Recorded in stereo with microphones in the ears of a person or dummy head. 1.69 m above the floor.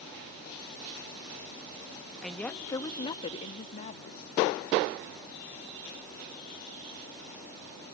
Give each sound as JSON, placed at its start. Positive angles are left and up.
{"t": 2.2, "sound": "a woman speaking", "side_deg": 5}